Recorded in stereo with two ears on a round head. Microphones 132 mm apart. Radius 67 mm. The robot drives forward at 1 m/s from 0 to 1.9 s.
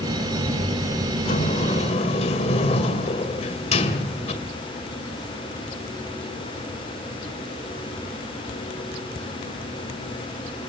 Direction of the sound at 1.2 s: 60° left (ahead or behind).